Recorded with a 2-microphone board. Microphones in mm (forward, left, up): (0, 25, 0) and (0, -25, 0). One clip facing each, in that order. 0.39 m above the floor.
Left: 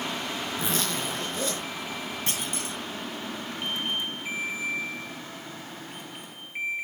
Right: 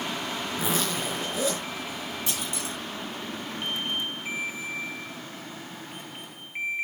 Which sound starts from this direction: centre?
A zipper, at 0.6 s.